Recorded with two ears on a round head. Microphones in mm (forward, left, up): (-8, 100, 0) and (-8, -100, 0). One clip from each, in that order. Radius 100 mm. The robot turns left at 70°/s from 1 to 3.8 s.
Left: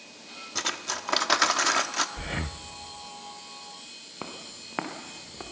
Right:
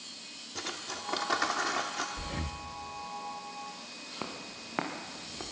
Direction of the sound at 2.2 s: 75° left.